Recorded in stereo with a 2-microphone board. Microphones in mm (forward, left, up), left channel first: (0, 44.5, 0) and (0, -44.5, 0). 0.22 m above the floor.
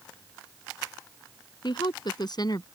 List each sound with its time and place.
1.6 s a woman speaking: 60° left (ahead or behind); by 2.6 s 50° left (ahead or behind)